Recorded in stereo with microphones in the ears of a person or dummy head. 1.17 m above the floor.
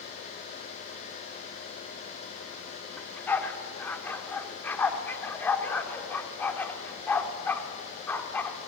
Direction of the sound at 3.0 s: 10° left (ahead or behind).